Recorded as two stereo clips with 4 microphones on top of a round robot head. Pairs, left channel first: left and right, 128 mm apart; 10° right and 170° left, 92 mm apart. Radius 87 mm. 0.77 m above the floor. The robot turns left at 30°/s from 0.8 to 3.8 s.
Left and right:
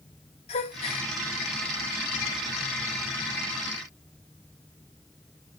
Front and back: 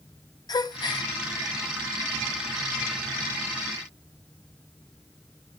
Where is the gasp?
40° left, 0.6 m; by 1.1 s 30° left, 0.6 m.